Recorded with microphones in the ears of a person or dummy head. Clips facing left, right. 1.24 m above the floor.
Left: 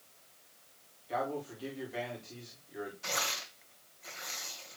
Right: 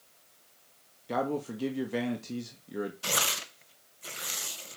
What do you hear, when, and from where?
1.1 s a man speaking: 70° right (ahead or behind), 2 m
3.0 s tearing paper: 45° right (ahead or behind), 0.9 m